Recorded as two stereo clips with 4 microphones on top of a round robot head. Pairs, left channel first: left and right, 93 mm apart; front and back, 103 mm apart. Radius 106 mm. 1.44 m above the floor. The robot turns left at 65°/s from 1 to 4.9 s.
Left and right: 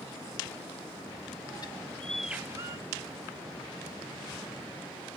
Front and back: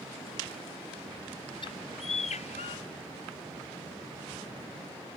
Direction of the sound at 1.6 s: 35° left.